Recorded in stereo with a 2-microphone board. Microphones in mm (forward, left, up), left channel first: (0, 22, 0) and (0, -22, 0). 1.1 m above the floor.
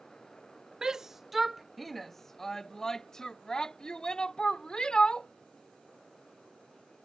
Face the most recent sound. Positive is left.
turn(degrees=20)  # may be behind; listen again after turning